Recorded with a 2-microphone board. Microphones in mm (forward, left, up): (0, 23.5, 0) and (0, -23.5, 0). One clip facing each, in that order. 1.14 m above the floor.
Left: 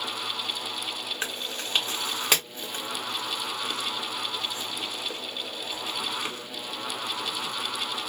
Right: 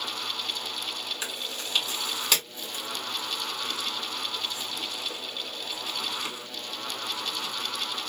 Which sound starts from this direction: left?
Chewing, at 1.2 s.